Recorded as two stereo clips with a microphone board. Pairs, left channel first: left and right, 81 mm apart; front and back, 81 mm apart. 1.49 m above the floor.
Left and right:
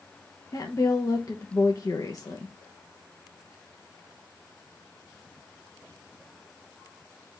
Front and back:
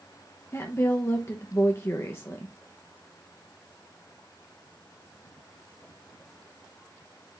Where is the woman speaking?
55° left, 0.9 m.